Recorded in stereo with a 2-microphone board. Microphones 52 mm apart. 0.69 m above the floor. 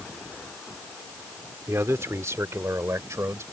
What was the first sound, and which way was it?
A man speaking, 65° right (ahead or behind).